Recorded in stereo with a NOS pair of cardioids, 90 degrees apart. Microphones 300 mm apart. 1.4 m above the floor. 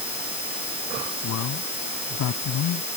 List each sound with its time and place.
1.2 s a man speaking: 70° left